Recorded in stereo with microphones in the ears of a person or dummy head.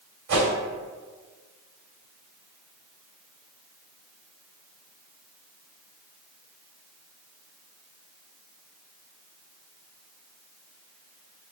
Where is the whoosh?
50° right (ahead or behind), 1.9 m.